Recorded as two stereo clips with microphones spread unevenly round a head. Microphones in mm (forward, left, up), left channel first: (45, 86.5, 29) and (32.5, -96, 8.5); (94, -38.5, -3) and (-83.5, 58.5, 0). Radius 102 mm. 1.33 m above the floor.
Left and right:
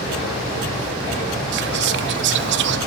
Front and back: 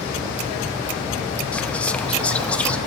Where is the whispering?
115° right, 0.8 m.